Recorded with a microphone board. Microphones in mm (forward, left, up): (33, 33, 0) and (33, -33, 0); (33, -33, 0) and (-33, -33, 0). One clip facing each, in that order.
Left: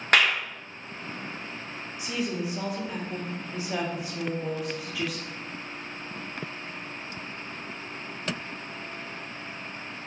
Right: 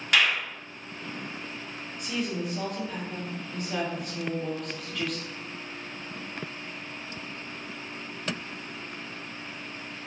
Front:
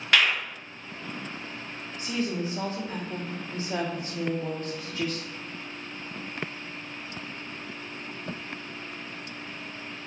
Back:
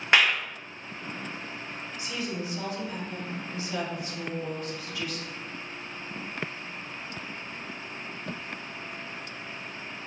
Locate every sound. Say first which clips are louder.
0.1 s a clap: left 2 dB, back 1 dB; 115° left, 0.7 m
2.0 s a woman speaking: left 1 dB, front 5 dB; 10° left, 0.8 m